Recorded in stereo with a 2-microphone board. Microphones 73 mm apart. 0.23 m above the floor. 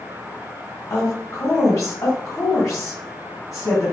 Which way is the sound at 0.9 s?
45° left (ahead or behind).